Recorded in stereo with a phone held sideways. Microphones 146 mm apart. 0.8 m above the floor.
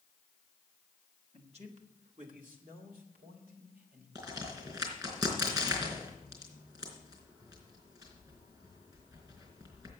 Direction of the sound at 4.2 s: 25° right (ahead or behind).